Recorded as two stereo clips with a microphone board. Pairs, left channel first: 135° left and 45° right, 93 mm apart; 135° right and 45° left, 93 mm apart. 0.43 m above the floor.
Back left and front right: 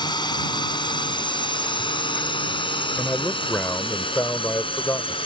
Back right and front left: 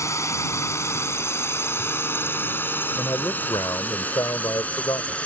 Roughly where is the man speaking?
Behind.